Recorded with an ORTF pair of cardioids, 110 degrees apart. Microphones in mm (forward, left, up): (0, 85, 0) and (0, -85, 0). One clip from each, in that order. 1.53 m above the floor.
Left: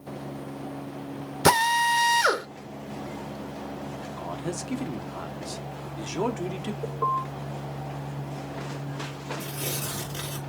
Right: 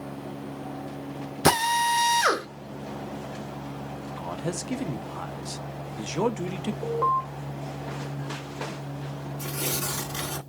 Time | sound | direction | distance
1.4 | a drill | straight ahead | 1.0 m
4.2 | a man speaking | 10° right | 0.9 m
6.8 | an alarm | 35° right | 2 m
9.4 | tearing paper | 45° right | 2.5 m